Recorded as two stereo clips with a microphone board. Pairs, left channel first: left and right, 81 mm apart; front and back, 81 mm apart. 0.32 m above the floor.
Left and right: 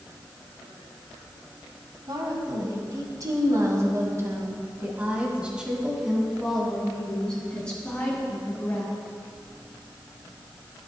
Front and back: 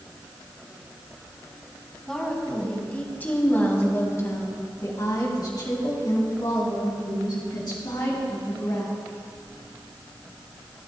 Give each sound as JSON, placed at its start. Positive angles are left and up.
{"t": 2.1, "sound": "a woman speaking", "azimuth_deg": -80, "distance_m": 2.5}